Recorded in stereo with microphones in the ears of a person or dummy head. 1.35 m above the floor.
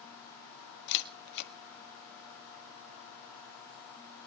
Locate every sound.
0.9 s a camera shutter: 60° left (ahead or behind), 1.6 m